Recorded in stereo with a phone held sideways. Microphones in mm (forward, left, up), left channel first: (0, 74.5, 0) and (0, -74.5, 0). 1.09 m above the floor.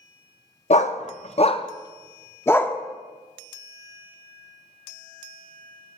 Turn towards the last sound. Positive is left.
turn(degrees=10)  # may be behind; listen again after turning